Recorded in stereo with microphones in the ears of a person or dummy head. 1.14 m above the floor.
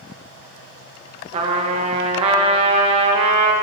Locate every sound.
1.3 s a trumpet: 35° right (ahead or behind), 1.4 m